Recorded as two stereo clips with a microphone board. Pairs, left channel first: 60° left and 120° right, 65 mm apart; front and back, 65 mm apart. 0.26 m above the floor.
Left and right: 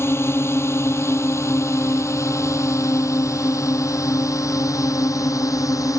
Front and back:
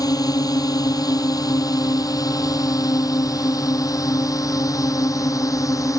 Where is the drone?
10° left; by 6.0 s 30° left.